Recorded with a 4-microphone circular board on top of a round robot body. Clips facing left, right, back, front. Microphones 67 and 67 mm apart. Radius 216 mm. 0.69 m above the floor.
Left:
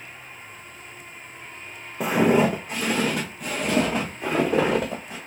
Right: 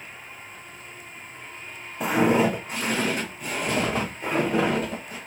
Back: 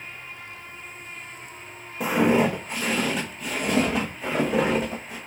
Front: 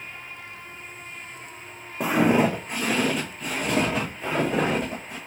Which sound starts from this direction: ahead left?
Footsteps, at 2.0 s.